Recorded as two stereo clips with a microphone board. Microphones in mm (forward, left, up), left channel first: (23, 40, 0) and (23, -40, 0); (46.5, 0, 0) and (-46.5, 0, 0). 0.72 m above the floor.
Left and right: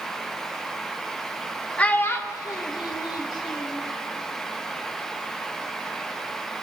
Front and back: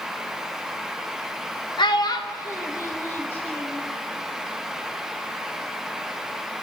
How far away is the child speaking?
About 0.7 m.